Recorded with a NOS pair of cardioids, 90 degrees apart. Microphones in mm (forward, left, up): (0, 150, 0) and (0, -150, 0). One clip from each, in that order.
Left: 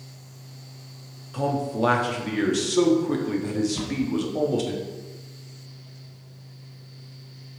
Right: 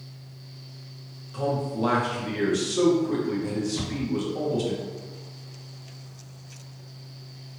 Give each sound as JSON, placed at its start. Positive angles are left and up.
{"t": 0.0, "sound": "a fan", "azimuth_deg": -30, "distance_m": 1.8}
{"t": 1.3, "sound": "a man speaking", "azimuth_deg": 25, "distance_m": 1.0}
{"t": 3.8, "sound": "a cupboard door", "azimuth_deg": 10, "distance_m": 1.9}